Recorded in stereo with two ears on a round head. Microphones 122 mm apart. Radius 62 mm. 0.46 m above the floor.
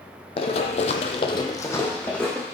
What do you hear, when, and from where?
0.4 s running footsteps: 45° left (ahead or behind), 0.9 m; by 2.5 s 5° left (ahead or behind), 1.4 m